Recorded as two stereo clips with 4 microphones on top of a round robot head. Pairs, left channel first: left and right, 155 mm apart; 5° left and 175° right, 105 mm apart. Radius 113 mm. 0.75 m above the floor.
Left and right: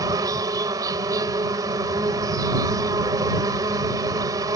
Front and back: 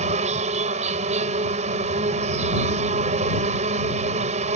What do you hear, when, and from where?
0.0 s an insect: 160° right